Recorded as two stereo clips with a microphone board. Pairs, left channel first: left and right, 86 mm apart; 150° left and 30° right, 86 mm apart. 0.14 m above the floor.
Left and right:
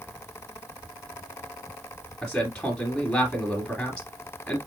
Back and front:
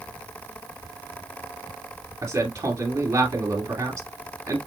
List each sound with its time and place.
2.2 s a man speaking: 10° left, 2.5 m